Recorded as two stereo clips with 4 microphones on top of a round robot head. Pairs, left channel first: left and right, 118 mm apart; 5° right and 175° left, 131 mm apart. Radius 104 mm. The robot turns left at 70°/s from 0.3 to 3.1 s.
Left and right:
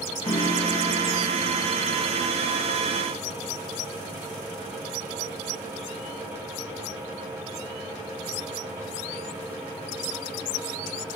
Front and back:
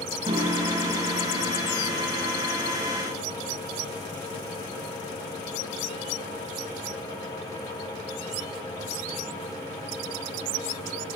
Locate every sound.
0.2 s a piano: 130° left, 4.5 m; by 2.2 s straight ahead, 4.5 m